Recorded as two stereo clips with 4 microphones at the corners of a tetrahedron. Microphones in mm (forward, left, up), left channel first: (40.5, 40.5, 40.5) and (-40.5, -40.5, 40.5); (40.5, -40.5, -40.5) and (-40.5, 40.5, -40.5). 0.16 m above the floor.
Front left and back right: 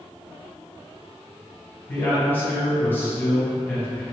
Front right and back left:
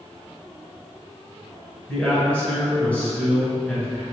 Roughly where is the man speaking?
Ahead.